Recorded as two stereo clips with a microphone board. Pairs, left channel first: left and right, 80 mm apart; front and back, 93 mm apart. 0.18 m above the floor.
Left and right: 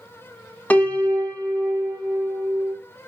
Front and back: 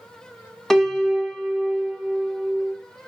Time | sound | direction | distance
0.7 | a piano | 75° left | 0.6 m